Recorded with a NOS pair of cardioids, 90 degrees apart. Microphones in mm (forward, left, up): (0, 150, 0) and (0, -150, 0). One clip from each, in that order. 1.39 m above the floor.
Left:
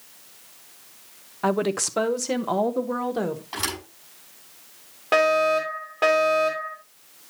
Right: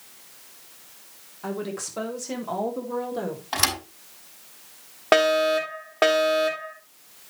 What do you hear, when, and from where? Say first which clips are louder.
1.4 s a woman speaking: left 8 dB; 65° left, 0.9 m; by 3.4 s 35° left, 1.9 m
3.5 s a thud: right 9 dB; 50° right, 4 m
5.1 s a fire alarm: even; 45° right, 3 m